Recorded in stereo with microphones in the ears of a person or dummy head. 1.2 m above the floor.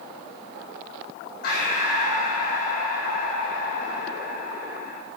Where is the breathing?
50° left (ahead or behind), 0.9 m.